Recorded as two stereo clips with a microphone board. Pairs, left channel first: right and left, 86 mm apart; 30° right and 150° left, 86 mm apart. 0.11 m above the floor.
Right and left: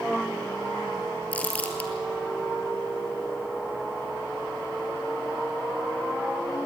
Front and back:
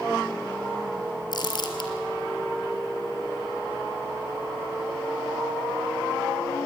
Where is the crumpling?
20° right, 2 m.